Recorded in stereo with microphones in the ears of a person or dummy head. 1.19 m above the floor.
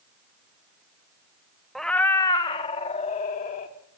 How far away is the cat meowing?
About 0.7 m.